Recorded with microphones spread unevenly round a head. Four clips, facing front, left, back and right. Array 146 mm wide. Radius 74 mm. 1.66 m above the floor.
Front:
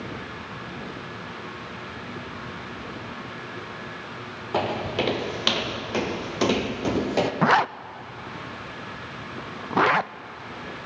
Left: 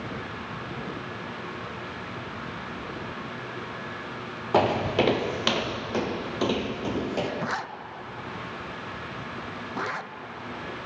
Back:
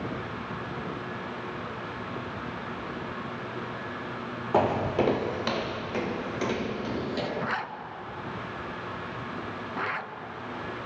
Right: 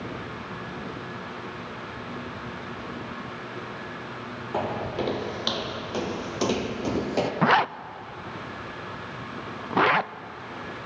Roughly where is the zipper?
Ahead right.